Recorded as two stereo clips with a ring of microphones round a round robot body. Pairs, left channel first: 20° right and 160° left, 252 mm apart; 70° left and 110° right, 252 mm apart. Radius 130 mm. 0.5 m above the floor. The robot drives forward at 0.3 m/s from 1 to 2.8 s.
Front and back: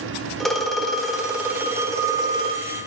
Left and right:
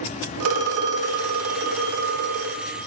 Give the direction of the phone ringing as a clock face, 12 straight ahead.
4 o'clock.